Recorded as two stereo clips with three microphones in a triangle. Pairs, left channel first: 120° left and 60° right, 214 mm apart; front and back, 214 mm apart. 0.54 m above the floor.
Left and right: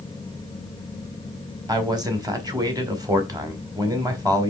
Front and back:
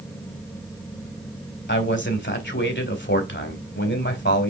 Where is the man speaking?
10° left, 2 m.